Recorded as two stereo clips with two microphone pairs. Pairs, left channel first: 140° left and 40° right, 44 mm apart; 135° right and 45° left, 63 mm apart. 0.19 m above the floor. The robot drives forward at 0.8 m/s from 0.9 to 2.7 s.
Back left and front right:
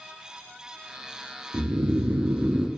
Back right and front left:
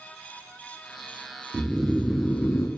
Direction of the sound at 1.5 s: 30° right.